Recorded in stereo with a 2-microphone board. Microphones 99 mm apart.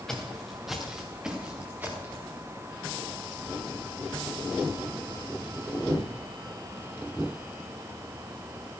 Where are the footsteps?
5° left (ahead or behind), 3 m; by 2.3 s 25° right (ahead or behind), 3 m.